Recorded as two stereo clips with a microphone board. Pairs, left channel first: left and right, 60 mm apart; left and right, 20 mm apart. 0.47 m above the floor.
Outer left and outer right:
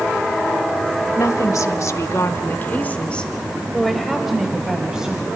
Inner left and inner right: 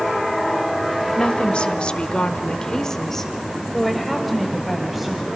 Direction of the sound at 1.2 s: 55° left (ahead or behind).